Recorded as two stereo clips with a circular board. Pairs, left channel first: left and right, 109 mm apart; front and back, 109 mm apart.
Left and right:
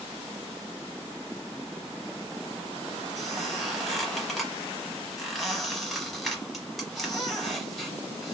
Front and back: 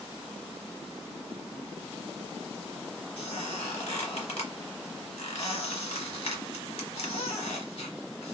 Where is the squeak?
Straight ahead, 1.0 m.